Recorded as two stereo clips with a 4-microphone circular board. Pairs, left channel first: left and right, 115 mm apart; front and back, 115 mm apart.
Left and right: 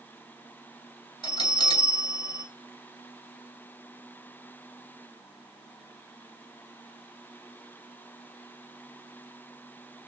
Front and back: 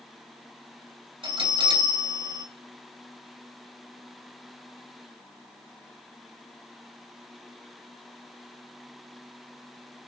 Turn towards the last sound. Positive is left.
turn(degrees=135)